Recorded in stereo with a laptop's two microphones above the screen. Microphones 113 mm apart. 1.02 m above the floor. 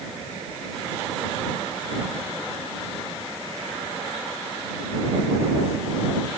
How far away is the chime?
No chime in this recording.